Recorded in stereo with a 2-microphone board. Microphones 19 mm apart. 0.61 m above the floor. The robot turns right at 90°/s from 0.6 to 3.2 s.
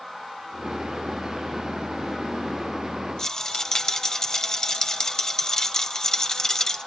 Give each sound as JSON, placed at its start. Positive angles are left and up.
{"t": 3.2, "sound": "a rattle", "side_deg": 30, "distance_m": 1.8}